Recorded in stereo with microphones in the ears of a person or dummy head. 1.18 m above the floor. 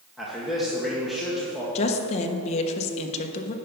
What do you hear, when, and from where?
0.2 s a man speaking: 5° left (ahead or behind), 1.5 m
1.8 s a woman speaking: 45° left (ahead or behind), 1.0 m